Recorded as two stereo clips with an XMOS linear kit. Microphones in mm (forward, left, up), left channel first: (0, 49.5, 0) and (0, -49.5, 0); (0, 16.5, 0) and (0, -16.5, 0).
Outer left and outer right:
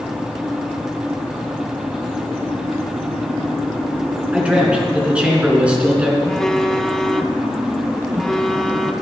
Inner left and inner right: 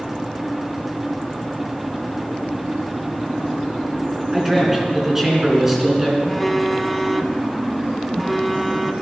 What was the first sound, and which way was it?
A man speaking, 10° right (ahead or behind).